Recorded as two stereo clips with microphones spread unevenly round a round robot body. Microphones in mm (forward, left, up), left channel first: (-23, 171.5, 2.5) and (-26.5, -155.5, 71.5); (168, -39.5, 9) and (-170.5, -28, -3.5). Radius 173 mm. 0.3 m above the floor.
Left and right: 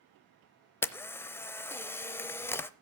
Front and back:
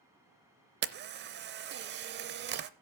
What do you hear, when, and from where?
0.8 s a camera shutter: 150° left, 0.6 m